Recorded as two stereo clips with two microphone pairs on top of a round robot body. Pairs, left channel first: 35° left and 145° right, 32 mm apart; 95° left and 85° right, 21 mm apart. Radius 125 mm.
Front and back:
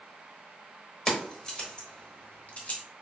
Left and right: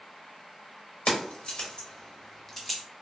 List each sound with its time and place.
1.1 s keys jangling: 110° left, 1.6 m; by 2.8 s 5° left, 1.2 m